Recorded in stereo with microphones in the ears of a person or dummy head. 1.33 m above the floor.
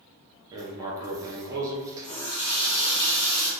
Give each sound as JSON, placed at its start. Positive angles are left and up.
{"t": 0.5, "sound": "writing", "side_deg": -15, "distance_m": 0.6}
{"t": 2.0, "sound": "a running tap", "side_deg": 25, "distance_m": 1.2}